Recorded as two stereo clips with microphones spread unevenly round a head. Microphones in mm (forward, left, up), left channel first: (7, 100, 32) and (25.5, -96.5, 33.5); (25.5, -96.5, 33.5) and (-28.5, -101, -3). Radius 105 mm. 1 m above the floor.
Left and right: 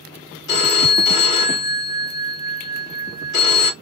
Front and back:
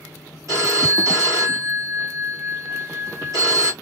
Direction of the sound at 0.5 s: 135° left.